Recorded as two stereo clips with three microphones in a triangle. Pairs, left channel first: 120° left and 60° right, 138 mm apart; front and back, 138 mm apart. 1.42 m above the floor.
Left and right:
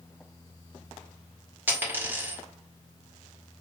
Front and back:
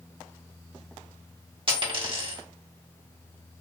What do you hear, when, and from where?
1.7 s a dropped coin: 135° right, 1.6 m